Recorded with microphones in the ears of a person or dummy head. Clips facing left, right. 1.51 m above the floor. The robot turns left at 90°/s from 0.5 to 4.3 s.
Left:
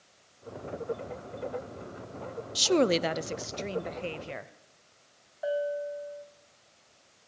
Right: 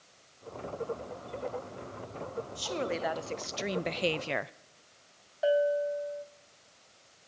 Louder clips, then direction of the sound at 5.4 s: Right 4 dB; 25° right (ahead or behind).